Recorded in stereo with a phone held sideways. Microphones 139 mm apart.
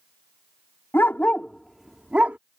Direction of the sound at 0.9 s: 15° left (ahead or behind).